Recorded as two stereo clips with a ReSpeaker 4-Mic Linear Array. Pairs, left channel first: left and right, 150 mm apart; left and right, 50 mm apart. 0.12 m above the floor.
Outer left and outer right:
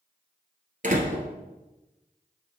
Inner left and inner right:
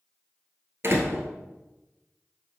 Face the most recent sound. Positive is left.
turn(degrees=-55)  # may be behind; listen again after turning